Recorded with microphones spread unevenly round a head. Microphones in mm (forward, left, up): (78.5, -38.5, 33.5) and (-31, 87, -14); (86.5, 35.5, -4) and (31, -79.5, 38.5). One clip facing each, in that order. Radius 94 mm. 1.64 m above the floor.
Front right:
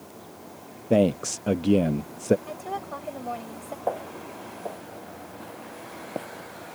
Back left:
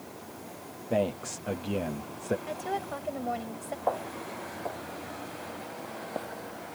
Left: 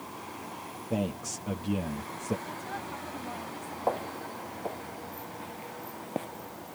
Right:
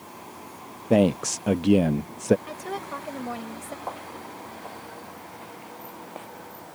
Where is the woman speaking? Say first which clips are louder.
Even, right 5 dB; 145° right.